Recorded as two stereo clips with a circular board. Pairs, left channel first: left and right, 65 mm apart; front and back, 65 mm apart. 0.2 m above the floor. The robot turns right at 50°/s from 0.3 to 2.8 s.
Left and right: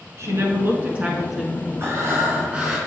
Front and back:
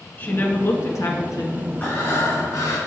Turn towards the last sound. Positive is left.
turn(degrees=-10)